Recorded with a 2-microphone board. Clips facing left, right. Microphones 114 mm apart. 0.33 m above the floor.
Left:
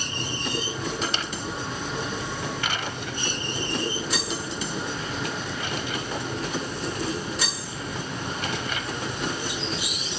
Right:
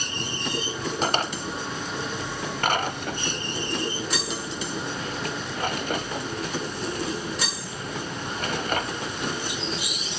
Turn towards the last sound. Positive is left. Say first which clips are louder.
# right 4 dB
turn(degrees=-50)  # may be behind; listen again after turning